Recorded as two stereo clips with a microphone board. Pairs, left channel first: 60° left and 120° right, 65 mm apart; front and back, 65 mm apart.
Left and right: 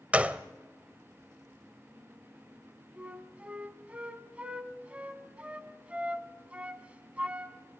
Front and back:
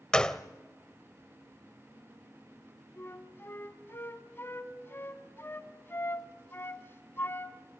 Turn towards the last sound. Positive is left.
turn(degrees=-50)